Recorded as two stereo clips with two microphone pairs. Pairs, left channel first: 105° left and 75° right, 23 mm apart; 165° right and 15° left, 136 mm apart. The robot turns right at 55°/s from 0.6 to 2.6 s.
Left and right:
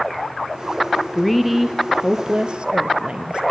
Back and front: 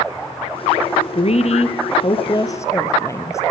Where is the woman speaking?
175° left, 1.9 m; by 3.4 s 105° right, 1.9 m.